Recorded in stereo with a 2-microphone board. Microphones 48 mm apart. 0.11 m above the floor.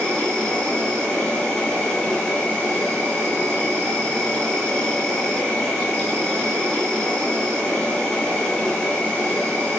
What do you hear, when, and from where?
0.0 s an insect: 15° left (ahead or behind), 0.9 m